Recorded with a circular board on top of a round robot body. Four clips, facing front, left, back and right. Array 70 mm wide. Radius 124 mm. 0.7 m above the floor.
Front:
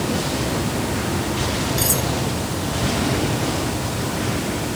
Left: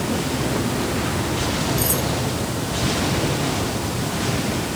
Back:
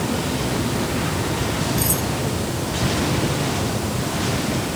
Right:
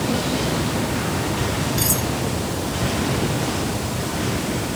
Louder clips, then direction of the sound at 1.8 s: Left 1 dB, front 1 dB; 45° right.